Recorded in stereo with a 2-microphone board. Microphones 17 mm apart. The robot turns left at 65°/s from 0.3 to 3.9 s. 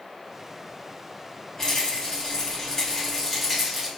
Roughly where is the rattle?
Behind left.